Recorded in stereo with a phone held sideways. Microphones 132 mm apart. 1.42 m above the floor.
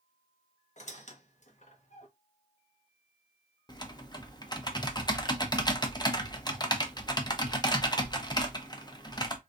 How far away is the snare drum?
No snare drum in this recording.